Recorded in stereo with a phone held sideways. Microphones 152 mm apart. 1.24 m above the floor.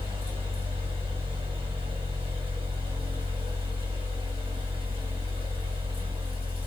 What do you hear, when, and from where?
0.0 s a fan: 35° right (ahead or behind), 1.4 m